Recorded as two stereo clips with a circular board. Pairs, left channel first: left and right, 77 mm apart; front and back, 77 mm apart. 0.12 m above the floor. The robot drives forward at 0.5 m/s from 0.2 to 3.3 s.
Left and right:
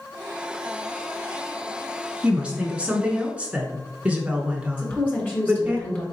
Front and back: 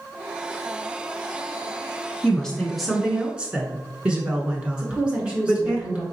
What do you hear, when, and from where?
2.2 s a woman speaking: 45° right, 1.1 m; by 5.8 s 135° right, 1.1 m
4.8 s a woman speaking: 120° left, 1.7 m